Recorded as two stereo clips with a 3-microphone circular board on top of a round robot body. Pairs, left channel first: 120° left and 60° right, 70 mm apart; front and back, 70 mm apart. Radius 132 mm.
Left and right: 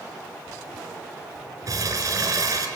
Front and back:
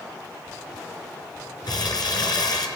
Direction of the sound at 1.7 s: 20° right.